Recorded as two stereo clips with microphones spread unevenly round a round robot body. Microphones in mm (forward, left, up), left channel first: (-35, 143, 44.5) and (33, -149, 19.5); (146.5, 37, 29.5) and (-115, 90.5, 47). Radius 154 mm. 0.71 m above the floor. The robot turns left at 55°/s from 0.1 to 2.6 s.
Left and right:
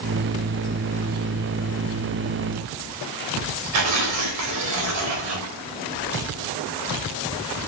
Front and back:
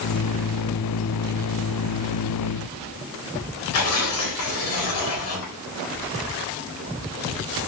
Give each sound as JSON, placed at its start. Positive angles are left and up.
{"t": 3.7, "sound": "tearing paper", "azimuth_deg": -50, "distance_m": 4.0}